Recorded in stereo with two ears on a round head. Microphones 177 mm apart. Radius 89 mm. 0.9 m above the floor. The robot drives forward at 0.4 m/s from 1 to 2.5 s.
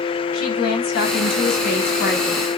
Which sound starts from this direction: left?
A woman speaking, at 0.3 s.